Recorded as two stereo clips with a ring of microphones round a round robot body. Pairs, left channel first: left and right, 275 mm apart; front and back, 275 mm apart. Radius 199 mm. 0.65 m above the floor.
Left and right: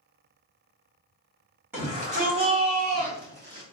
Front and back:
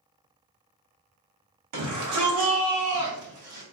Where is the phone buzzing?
I don't hear a phone buzzing.